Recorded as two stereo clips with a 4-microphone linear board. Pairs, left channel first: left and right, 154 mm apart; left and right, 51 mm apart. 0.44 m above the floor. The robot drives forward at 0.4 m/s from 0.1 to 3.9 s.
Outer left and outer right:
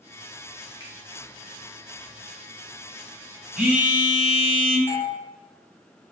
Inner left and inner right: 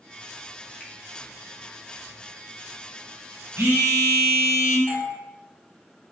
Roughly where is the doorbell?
Centre.